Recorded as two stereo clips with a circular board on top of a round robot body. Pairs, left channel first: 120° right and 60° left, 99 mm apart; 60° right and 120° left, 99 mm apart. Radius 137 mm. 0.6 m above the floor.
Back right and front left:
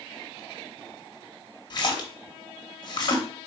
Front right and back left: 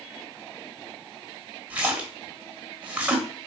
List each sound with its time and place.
1.7 s a splash: 165° right, 1.0 m